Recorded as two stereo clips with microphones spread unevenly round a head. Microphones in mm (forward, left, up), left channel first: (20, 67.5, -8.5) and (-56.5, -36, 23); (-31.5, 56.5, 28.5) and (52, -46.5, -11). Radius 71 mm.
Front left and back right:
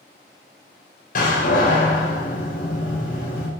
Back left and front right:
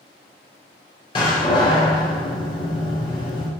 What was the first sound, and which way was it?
A door slam, 75° left.